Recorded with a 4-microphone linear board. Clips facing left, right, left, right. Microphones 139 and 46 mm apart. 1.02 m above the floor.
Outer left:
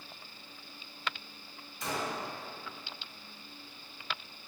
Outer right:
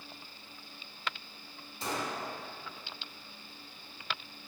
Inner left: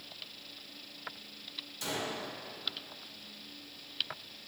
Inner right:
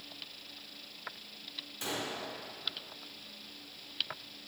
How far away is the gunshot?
About 1.5 m.